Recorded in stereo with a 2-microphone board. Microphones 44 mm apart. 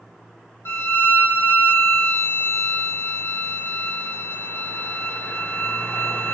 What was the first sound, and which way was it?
A violin, 65° left (ahead or behind).